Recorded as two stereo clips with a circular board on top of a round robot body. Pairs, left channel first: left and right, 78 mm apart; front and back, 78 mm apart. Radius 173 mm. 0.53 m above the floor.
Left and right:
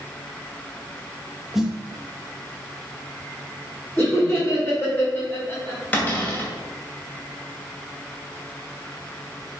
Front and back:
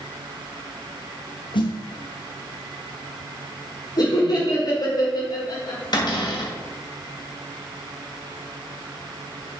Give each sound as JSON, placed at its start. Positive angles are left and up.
{"t": 1.5, "sound": "a snare drum", "azimuth_deg": -5, "distance_m": 1.3}
{"t": 4.0, "sound": "laughter", "azimuth_deg": 15, "distance_m": 2.5}
{"t": 5.9, "sound": "a cupboard door", "azimuth_deg": 20, "distance_m": 2.5}